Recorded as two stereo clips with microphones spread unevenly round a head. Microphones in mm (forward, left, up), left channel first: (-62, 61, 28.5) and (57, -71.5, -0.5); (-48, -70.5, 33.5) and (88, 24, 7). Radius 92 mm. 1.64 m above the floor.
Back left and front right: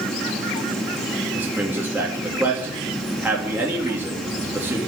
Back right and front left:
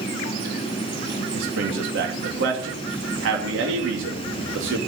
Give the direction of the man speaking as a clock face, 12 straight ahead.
11 o'clock.